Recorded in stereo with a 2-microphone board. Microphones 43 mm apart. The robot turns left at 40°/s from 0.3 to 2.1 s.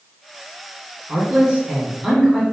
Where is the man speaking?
135° right, 2 m; by 2.4 s 175° right, 2 m.